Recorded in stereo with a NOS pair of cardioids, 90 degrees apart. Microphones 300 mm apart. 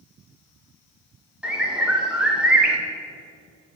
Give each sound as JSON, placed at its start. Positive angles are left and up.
{"t": 1.4, "sound": "a bird", "azimuth_deg": -5, "distance_m": 1.3}